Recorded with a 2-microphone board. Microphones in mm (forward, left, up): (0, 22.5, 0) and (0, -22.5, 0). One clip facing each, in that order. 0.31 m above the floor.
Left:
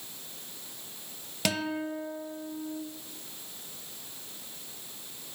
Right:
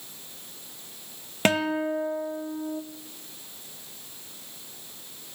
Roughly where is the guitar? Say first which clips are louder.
Right 7 dB; right.